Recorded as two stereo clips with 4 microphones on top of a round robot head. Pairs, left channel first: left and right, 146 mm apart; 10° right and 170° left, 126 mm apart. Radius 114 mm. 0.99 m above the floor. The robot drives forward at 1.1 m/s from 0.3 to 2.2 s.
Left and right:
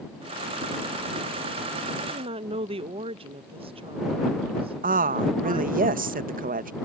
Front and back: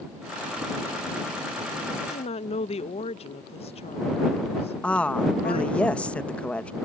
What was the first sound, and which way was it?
A woman speaking, 35° right.